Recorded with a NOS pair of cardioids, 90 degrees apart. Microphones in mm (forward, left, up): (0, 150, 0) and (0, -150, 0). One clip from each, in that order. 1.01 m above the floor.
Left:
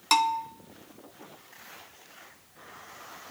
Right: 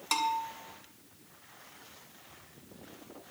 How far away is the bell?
About 1.4 m.